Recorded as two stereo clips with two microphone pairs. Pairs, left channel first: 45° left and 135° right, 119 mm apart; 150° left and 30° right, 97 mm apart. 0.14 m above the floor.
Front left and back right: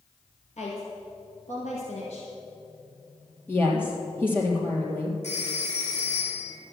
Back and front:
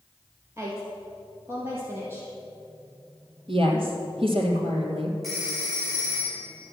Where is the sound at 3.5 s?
25° right, 3.5 m.